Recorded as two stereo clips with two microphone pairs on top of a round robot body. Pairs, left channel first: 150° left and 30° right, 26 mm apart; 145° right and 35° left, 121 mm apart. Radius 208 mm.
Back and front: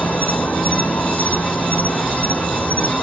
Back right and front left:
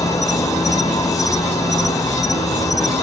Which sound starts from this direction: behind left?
An insect, at 0.0 s.